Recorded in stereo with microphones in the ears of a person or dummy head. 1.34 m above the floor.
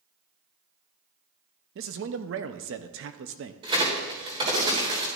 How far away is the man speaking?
About 0.7 m.